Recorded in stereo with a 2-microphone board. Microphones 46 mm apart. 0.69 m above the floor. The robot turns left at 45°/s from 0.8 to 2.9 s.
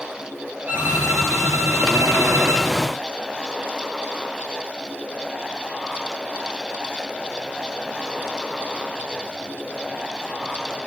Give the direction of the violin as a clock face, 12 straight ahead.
1 o'clock.